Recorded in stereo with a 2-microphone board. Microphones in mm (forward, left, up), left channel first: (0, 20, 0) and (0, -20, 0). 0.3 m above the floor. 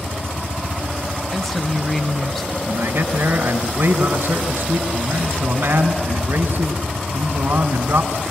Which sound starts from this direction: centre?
A woman speaking, at 1.3 s.